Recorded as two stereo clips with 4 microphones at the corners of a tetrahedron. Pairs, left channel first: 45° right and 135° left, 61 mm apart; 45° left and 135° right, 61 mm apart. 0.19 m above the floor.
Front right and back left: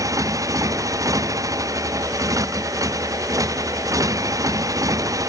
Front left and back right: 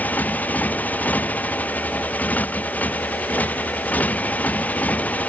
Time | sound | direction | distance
0.0 | a motorcycle | 110° left | ?